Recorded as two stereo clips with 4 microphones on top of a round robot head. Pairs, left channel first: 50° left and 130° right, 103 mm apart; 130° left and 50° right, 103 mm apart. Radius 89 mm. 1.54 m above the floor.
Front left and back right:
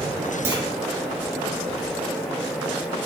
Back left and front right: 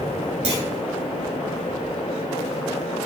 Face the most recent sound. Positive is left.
turn(degrees=-60)